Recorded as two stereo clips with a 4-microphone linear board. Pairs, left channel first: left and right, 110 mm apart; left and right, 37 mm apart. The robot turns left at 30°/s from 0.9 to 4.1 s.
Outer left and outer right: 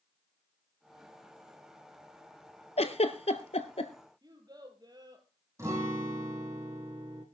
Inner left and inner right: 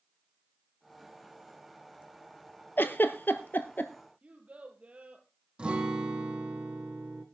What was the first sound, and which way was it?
A giggle, 70° left (ahead or behind).